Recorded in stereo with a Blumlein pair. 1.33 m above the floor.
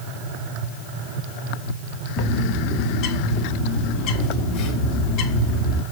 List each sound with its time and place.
2.2 s a bird: 35° left, 2.5 m